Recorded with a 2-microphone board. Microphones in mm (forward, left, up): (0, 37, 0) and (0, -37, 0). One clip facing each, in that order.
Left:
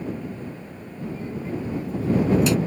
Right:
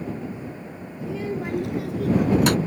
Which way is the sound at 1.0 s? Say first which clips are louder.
Right 3 dB; 75° right (ahead or behind).